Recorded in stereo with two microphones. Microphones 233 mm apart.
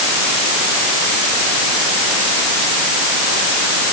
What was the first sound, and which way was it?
Only background noise.